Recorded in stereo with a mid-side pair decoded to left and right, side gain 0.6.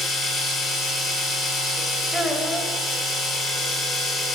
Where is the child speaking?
5° left, 0.9 m.